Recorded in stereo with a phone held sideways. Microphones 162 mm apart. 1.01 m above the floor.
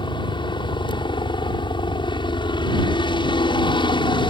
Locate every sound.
0.0 s a helicopter: 30° left (ahead or behind)